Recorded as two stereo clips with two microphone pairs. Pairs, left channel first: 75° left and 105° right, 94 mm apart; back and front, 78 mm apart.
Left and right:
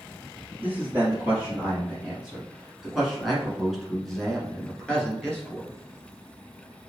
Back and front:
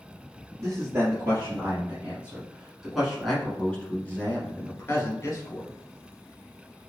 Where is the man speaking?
35° right, 2.0 m; by 5.7 s 150° left, 1.9 m.